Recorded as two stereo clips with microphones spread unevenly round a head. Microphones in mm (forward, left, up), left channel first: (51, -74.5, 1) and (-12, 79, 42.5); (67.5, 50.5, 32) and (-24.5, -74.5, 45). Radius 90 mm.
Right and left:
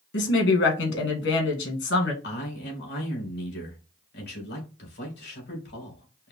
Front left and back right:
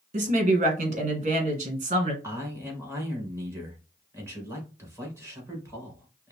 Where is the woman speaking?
85° right, 1.9 m.